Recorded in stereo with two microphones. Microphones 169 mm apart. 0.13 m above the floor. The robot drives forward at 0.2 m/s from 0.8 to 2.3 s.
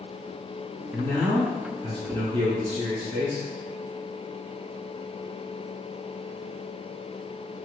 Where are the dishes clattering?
No dishes clattering in this recording.